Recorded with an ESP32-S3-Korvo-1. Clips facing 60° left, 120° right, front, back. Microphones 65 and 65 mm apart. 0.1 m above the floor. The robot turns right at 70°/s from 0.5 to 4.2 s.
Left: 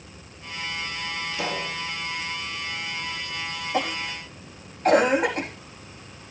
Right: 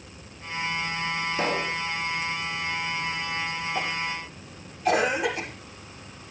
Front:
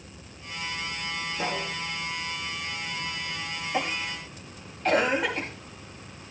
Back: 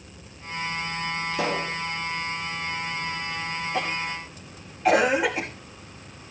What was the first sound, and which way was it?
A pop, straight behind.